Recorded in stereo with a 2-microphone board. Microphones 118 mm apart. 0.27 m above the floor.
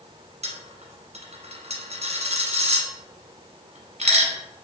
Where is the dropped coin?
70° right (ahead or behind), 1.0 m.